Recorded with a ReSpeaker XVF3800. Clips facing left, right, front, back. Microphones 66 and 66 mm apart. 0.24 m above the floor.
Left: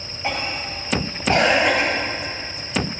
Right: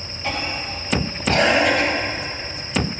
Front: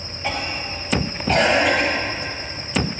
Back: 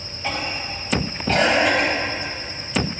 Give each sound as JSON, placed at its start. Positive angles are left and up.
{"t": 0.2, "sound": "a cough", "azimuth_deg": 75, "distance_m": 1.3}